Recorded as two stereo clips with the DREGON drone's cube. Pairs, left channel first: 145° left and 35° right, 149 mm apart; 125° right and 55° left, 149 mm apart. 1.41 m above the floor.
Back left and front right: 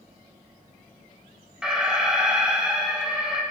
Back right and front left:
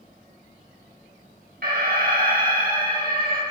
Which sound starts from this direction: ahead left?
An alarm, at 1.6 s.